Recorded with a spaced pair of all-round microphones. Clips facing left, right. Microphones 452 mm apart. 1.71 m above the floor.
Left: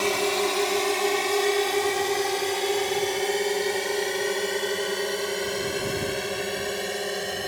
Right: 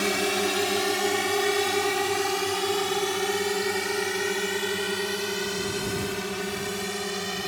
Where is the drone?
35° right (ahead or behind); by 7.5 s 20° right (ahead or behind).